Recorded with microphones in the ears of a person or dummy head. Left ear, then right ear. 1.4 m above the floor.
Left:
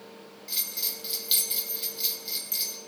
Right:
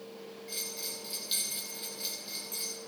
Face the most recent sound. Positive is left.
turn(degrees=15)  # may be behind; listen again after turning